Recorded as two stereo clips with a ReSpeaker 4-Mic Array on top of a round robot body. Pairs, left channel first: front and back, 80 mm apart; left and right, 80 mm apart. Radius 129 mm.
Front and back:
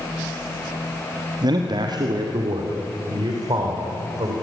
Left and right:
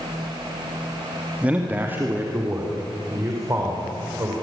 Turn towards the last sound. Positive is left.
turn(degrees=-145)